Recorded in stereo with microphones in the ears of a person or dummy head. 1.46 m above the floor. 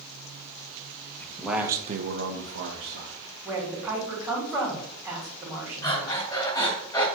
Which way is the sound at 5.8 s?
20° left (ahead or behind).